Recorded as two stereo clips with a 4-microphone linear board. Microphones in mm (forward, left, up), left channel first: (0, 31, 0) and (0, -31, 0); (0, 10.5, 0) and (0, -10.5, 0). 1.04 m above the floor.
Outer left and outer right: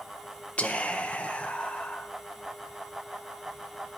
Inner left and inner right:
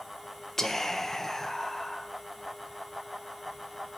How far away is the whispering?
About 0.8 m.